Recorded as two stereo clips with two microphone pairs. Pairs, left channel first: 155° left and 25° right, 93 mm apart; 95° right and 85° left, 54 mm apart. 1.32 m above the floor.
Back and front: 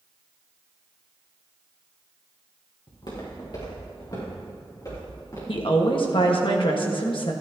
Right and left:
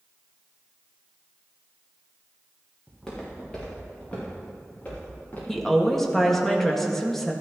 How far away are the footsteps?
About 4 m.